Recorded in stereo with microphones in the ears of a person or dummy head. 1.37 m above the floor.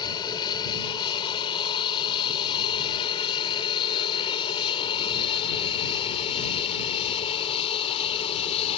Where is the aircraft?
25° left (ahead or behind); by 8.8 s 35° left (ahead or behind).